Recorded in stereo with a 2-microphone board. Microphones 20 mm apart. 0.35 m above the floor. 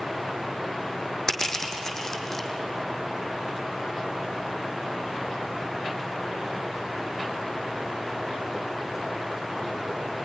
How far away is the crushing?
About 3.5 m.